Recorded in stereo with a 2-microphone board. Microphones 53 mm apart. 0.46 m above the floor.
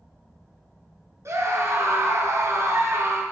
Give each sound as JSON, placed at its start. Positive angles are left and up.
{"t": 1.2, "sound": "a scream", "side_deg": -60, "distance_m": 6.0}